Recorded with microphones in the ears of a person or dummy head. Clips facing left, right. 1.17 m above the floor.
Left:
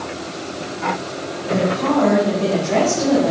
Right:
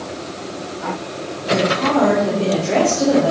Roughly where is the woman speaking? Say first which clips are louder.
Right 1 dB; right.